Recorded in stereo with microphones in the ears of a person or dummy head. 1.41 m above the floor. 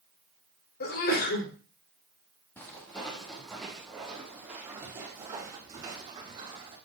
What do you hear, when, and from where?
0.8 s a sneeze: 55° left (ahead or behind), 3.5 m
2.6 s footsteps: 10° left (ahead or behind), 4 m; by 6.8 s 25° right (ahead or behind), 5 m